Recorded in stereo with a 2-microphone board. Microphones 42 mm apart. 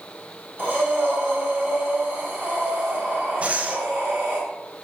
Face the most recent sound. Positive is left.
turn(degrees=-35)  # may be behind; listen again after turning